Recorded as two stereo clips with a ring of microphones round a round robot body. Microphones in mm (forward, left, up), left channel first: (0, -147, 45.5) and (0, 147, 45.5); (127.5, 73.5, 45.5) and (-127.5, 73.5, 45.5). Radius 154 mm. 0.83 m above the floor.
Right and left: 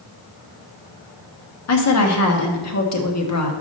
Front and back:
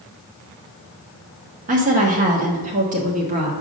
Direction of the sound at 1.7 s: 120° right.